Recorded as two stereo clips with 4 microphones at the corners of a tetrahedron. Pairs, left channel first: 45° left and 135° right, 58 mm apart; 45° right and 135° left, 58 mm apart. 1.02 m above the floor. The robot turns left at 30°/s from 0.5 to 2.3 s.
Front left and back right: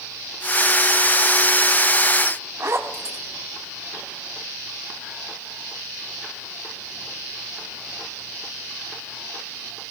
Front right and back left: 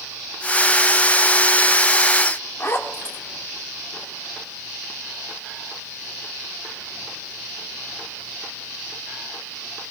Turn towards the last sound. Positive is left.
turn(degrees=-95)